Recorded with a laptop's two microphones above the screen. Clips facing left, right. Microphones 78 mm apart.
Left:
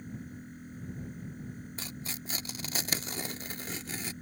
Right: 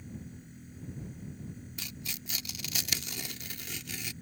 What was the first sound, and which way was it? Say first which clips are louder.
A machine running: left 3 dB; 45° left (ahead or behind).